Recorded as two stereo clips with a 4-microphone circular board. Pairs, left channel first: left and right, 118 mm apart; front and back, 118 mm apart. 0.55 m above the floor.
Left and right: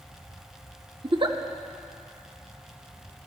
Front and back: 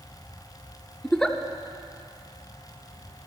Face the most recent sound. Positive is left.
turn(degrees=-80)